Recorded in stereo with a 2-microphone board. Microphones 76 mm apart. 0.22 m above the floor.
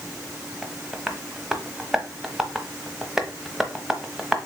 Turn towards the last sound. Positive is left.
turn(degrees=-5)  # may be behind; listen again after turning